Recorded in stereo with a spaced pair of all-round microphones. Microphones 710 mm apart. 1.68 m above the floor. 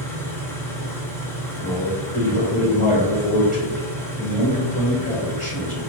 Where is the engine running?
5° left (ahead or behind), 0.8 m.